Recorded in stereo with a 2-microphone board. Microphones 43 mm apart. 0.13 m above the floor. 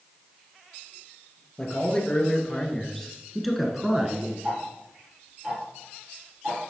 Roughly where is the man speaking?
Left.